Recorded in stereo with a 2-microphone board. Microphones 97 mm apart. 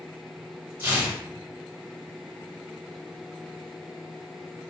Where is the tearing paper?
30° right (ahead or behind), 1.2 m.